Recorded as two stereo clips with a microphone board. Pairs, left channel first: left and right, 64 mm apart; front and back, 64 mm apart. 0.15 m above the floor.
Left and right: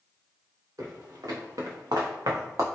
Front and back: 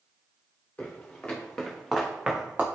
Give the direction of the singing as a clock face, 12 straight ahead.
No singing in this recording.